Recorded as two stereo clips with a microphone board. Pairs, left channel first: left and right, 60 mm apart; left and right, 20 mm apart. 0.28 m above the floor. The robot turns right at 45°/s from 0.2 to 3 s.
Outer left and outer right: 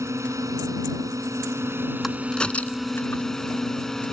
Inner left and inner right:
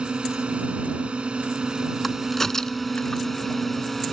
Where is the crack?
Centre (ahead or behind); by 3.2 s 40° left (ahead or behind).